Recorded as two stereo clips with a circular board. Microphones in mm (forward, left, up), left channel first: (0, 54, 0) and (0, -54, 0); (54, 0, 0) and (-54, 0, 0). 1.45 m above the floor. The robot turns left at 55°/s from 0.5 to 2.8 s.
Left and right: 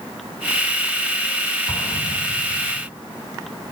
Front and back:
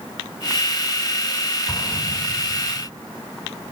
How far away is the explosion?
About 6.5 m.